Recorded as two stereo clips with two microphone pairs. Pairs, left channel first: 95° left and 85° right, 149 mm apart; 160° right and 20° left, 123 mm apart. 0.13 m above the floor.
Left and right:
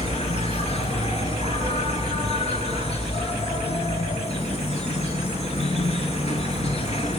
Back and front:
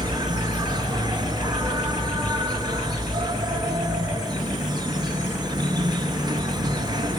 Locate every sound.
0.0 s an insect: 60° left, 0.7 m